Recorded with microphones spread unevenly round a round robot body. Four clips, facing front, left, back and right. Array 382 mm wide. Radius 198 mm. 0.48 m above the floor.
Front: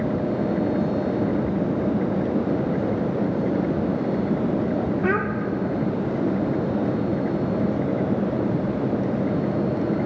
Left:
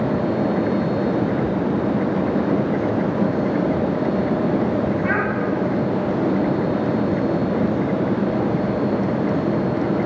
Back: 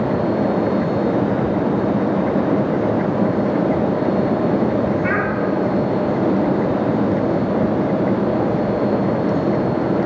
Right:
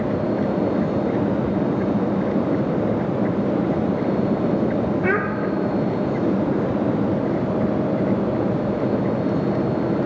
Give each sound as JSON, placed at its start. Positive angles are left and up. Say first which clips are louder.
{"t": 5.0, "sound": "a child speaking", "louder": "even, back 3 dB", "azimuth_deg": -55, "distance_m": 0.6}